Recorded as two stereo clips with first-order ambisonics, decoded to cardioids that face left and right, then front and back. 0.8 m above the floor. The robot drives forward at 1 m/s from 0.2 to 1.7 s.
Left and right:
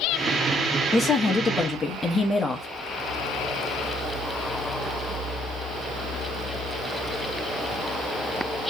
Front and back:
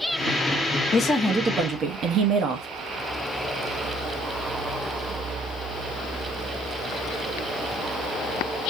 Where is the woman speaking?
35° left, 0.8 m; by 2.7 s 155° left, 0.9 m.